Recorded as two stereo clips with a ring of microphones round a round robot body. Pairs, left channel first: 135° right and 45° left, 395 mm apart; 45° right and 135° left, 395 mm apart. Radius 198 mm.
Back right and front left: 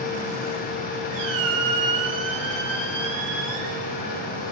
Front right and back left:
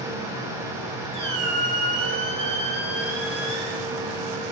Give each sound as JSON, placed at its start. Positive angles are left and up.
{"t": 1.1, "sound": "a squeak", "azimuth_deg": 60, "distance_m": 5.5}